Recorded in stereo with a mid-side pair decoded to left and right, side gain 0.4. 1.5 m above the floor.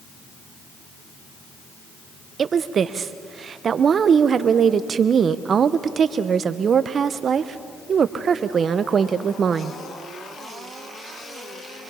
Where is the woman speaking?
55° right, 0.9 m.